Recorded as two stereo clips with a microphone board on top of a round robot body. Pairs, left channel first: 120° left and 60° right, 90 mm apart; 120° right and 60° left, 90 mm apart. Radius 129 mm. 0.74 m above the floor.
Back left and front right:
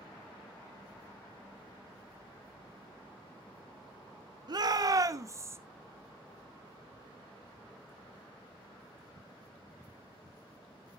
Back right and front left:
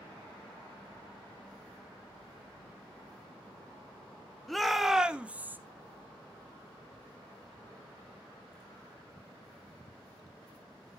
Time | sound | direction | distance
4.5 | a shout | 30° right | 1.7 m